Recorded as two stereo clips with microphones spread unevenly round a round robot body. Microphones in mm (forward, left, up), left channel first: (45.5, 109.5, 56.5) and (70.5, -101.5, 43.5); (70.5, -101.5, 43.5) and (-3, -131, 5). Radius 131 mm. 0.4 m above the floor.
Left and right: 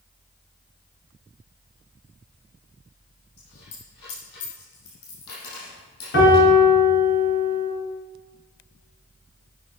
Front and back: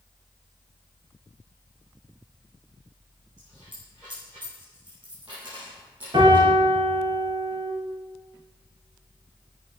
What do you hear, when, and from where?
3.4 s a dropped coin: 120° left, 6.5 m
6.1 s a piano: 145° left, 4 m